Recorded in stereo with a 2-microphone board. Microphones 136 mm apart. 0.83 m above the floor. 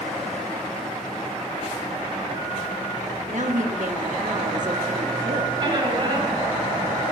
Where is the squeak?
35° right (ahead or behind), 6 m.